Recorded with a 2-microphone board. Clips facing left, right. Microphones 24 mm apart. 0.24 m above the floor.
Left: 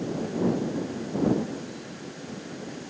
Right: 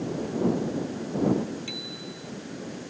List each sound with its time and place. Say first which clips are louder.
1.7 s a bicycle bell: right 4 dB; 85° right